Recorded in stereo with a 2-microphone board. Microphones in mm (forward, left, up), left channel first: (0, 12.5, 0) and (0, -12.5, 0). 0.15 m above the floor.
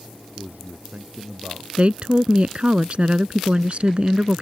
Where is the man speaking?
70° right (ahead or behind).